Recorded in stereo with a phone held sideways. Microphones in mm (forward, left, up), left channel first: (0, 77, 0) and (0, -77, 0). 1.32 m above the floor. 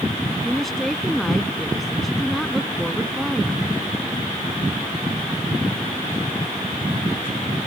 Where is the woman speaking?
Centre (ahead or behind).